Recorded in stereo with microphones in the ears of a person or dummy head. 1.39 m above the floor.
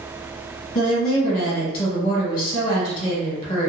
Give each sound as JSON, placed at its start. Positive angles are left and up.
{"t": 0.8, "sound": "a woman speaking", "side_deg": 35, "distance_m": 1.3}